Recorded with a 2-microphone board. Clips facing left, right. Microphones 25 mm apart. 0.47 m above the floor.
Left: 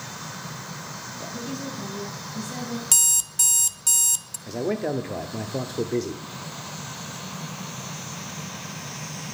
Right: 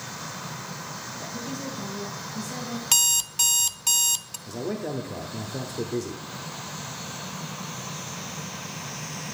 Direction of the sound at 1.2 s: 15° left (ahead or behind).